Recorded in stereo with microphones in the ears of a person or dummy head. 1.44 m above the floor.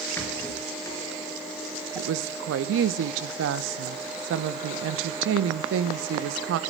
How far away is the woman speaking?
About 0.9 m.